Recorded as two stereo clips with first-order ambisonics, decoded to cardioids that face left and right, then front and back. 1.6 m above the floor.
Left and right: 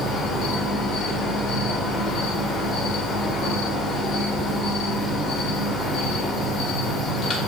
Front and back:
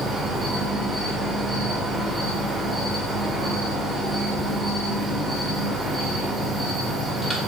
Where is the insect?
100° left, 1.4 m.